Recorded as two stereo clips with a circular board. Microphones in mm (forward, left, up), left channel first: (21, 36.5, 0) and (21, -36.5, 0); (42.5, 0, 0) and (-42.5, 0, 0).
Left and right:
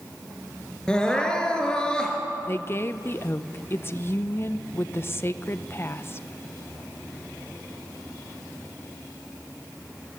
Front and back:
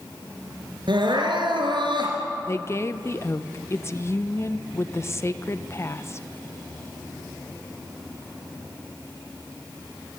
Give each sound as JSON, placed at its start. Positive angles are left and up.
{"t": 0.9, "sound": "crying", "azimuth_deg": 165, "distance_m": 4.0}
{"t": 2.5, "sound": "a woman speaking", "azimuth_deg": 45, "distance_m": 0.8}